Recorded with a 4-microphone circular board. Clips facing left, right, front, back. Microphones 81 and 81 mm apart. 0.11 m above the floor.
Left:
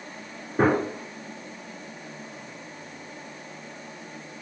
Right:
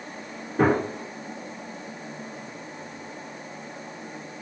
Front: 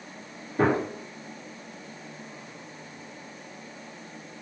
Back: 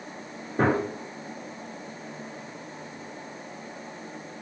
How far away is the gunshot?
About 1.4 m.